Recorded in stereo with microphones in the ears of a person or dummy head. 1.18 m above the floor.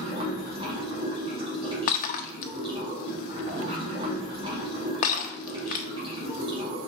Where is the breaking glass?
55° left (ahead or behind), 0.6 m.